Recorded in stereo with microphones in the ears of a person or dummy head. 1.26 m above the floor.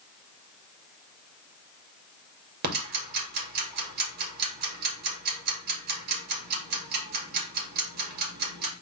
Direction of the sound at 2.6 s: 55° right (ahead or behind).